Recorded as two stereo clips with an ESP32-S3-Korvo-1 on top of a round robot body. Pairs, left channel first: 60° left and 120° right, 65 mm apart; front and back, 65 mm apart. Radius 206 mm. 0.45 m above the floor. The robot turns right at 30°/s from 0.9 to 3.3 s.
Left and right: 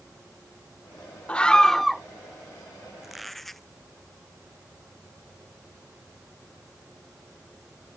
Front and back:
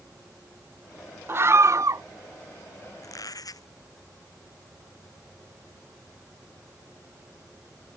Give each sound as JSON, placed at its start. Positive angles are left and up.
{"t": 1.3, "sound": "a scream", "azimuth_deg": 130}
{"t": 3.0, "sound": "a squeak", "azimuth_deg": -35}